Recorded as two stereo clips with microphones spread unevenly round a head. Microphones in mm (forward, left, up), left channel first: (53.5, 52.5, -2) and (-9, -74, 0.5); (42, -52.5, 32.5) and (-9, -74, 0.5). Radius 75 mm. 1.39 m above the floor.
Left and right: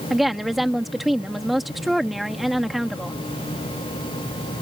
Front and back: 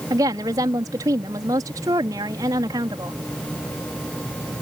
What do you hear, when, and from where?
0.1 s a woman speaking: 155° left